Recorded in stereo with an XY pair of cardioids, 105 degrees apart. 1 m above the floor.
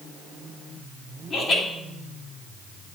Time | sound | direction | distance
1.3 | laughter | 55° left | 2.5 m